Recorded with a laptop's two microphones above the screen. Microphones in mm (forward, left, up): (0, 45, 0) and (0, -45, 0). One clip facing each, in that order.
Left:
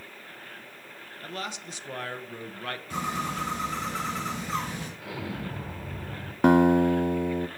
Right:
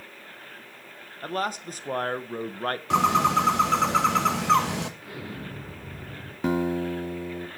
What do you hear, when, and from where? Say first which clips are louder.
1.2 s a man speaking: right 8 dB; 40° right (ahead or behind), 0.8 m
2.9 s a bird: right 11 dB; 65° right (ahead or behind), 1.0 m
5.0 s an explosion: left 2 dB; 80° left, 4 m
6.4 s a guitar: left 7 dB; 60° left (ahead or behind), 0.5 m